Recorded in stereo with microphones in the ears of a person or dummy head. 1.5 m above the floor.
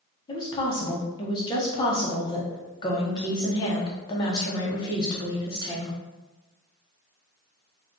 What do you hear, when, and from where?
0.3 s a woman speaking: 30° left (ahead or behind), 0.7 m